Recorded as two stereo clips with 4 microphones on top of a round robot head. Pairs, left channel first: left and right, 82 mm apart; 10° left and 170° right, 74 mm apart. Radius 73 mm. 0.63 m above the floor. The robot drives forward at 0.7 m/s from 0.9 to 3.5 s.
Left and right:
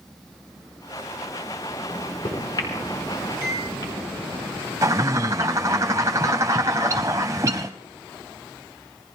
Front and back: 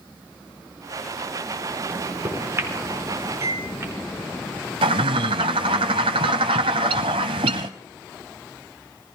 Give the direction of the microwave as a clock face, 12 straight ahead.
8 o'clock.